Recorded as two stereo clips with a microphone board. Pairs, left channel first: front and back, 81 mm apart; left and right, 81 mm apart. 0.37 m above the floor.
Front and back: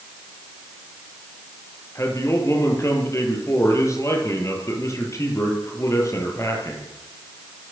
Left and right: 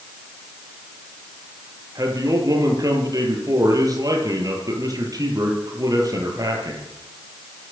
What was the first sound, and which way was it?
A man speaking, 50° right.